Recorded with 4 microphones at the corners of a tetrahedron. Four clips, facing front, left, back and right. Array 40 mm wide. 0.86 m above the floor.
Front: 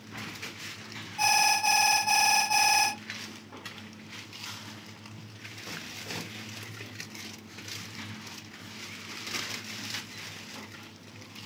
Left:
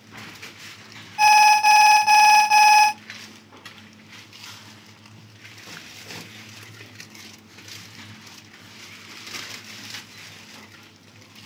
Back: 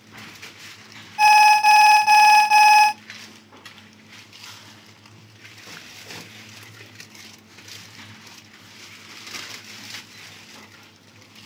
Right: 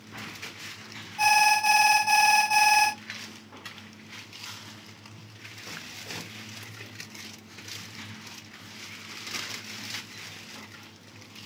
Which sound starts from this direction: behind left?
An alarm, at 1.2 s.